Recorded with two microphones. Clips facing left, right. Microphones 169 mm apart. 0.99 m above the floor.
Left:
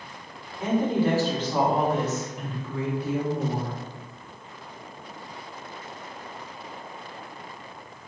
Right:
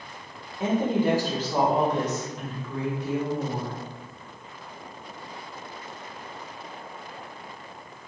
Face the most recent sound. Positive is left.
turn(degrees=35)  # may be behind; listen again after turning